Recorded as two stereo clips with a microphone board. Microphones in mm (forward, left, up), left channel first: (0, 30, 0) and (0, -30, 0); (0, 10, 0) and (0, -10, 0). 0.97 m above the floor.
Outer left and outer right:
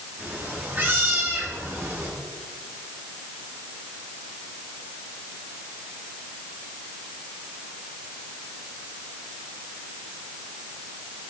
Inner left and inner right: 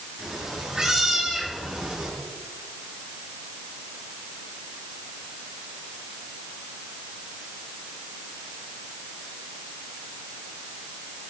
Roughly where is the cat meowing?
Right.